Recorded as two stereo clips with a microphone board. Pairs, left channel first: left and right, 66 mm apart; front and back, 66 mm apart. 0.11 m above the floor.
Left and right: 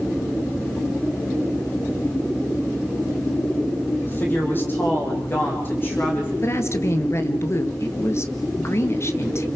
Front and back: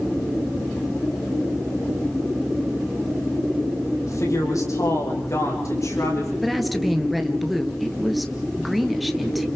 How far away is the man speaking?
About 6 m.